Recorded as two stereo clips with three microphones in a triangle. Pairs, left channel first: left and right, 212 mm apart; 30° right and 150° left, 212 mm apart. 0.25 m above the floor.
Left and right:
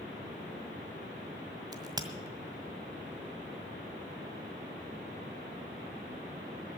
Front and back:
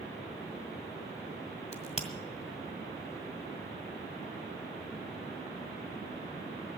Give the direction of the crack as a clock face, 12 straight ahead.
1 o'clock.